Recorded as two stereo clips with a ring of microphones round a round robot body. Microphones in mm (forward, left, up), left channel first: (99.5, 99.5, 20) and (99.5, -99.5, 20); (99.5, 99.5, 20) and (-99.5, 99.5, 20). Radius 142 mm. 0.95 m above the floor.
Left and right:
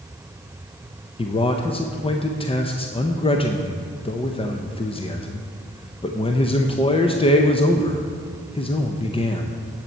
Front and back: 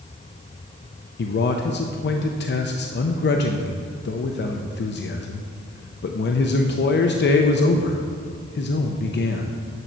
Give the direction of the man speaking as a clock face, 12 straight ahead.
11 o'clock.